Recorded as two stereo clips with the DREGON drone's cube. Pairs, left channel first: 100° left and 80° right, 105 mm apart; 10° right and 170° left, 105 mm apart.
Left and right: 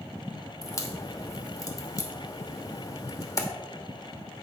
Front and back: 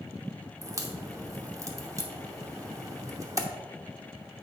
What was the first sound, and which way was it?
A crack, 130° left.